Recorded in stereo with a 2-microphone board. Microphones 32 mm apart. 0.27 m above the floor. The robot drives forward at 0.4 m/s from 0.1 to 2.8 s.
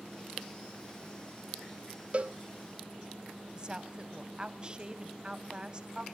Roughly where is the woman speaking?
Right.